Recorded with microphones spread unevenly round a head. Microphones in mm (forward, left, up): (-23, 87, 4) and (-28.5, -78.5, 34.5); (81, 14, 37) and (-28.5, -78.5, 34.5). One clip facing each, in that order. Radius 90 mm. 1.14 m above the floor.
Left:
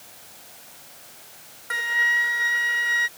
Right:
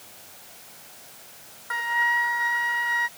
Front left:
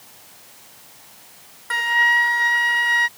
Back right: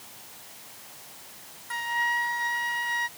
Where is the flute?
30° left.